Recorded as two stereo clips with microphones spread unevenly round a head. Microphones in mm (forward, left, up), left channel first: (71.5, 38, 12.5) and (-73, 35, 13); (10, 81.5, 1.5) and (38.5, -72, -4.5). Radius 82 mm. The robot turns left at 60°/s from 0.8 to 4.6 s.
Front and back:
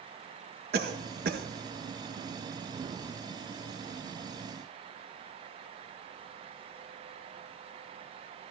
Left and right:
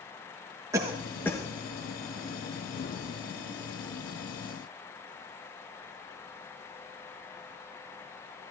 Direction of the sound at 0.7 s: 150° right.